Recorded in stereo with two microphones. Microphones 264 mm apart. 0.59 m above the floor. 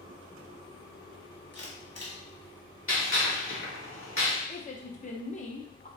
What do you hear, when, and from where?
1.5 s a camera shutter: 65° left (ahead or behind), 1.2 m
2.9 s a gunshot: 55° left (ahead or behind), 1.2 m
4.5 s a woman speaking: 30° left (ahead or behind), 0.7 m